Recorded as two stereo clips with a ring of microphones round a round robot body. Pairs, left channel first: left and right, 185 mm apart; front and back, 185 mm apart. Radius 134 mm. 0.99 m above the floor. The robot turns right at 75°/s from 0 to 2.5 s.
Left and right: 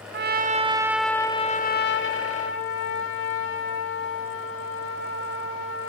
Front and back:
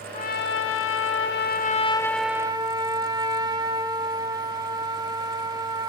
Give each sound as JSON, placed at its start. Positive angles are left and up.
{"t": 0.1, "sound": "a trumpet", "azimuth_deg": -65, "distance_m": 1.6}